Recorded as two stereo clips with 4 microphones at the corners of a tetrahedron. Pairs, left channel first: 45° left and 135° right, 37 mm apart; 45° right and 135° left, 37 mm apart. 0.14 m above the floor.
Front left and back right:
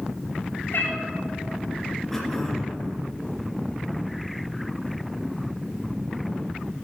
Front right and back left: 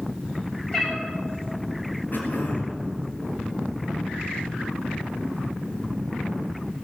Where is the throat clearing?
35° right, 2.5 m.